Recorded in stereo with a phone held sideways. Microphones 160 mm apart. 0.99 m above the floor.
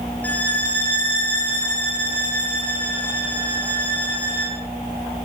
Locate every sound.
0.2 s a violin: 10° left (ahead or behind), 4 m